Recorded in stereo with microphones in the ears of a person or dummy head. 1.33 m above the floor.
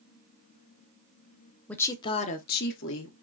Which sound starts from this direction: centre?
A woman speaking, at 1.7 s.